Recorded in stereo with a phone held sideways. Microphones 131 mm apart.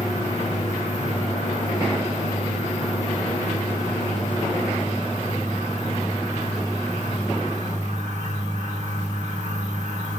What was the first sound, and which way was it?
A fan, 60° right (ahead or behind).